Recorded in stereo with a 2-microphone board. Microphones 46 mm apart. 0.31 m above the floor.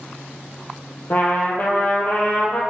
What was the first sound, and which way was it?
A trumpet, 40° left (ahead or behind).